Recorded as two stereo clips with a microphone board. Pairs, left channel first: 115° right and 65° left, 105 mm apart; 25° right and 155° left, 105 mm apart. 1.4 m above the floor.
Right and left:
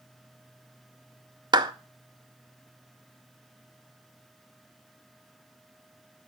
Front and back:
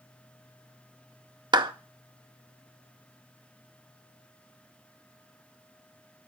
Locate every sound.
1.5 s a clap: 115° left, 0.6 m